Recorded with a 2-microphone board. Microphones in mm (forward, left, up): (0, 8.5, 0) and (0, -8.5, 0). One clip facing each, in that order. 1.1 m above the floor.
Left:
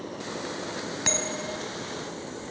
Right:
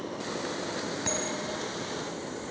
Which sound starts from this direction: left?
A bell, at 1.1 s.